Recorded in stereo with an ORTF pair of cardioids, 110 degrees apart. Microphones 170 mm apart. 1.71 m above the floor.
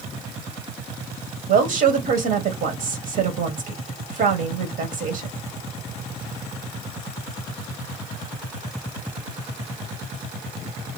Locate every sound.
1.5 s a woman speaking: 65° right, 1.4 m